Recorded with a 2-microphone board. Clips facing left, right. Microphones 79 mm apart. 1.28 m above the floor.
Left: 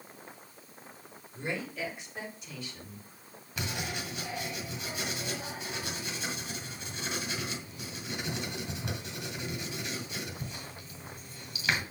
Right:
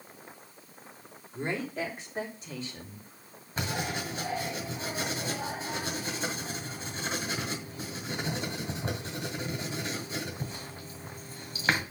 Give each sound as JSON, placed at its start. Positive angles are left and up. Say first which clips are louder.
{"t": 1.3, "sound": "a woman speaking", "louder": "right 3 dB", "side_deg": -40, "distance_m": 3.0}
{"t": 3.6, "sound": "writing", "louder": "right 4 dB", "side_deg": -40, "distance_m": 2.0}